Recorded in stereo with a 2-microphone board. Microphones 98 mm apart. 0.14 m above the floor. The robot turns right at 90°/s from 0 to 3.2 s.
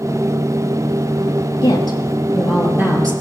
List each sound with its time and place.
1.6 s a woman speaking: 100° left, 3 m; by 3.1 s 125° right, 3 m